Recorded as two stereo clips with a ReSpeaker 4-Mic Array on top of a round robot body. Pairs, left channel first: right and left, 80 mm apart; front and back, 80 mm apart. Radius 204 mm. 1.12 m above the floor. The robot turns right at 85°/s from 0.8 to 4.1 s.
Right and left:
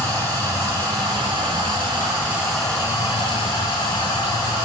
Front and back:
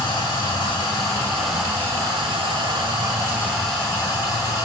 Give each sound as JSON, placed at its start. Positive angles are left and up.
{"t": 0.0, "sound": "running water", "azimuth_deg": 35, "distance_m": 4.5}